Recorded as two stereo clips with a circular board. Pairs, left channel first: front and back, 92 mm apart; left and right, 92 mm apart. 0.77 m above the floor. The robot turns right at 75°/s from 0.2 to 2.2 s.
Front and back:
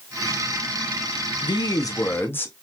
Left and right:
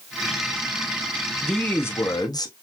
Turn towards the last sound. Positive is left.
turn(degrees=60)